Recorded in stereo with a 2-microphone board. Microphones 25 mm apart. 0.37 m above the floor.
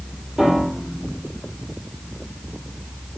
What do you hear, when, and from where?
0.4 s a piano: 15° right (ahead or behind), 9 m